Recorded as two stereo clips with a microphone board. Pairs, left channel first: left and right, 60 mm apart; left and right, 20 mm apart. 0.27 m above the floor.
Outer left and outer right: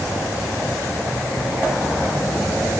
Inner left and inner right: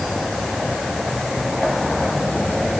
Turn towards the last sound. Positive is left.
No sound to turn to.